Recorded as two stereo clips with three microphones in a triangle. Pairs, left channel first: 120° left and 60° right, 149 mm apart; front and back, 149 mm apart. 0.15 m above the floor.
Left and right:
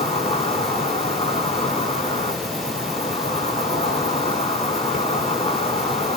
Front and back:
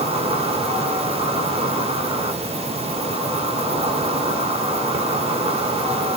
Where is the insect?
145° left, 0.7 m.